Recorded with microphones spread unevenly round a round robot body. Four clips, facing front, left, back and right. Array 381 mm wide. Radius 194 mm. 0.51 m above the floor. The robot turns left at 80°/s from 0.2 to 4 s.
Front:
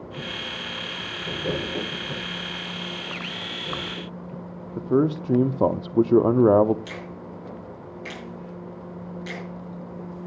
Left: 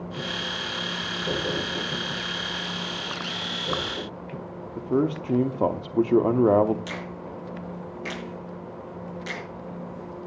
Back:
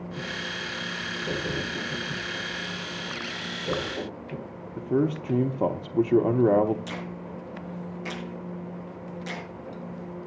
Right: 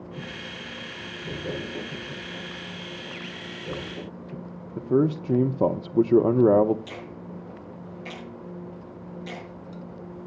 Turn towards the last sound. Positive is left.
turn(degrees=90)